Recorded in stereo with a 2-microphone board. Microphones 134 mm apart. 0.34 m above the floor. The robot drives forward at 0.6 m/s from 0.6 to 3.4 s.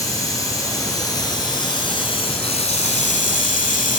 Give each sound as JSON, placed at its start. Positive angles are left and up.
{"t": 0.0, "sound": "running water", "side_deg": 25, "distance_m": 2.0}